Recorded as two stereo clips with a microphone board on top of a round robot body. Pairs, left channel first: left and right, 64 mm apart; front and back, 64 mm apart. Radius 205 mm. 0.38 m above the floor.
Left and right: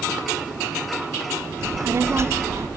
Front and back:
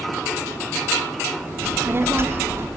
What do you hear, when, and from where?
1.6 s a child speaking: 130° right, 0.7 m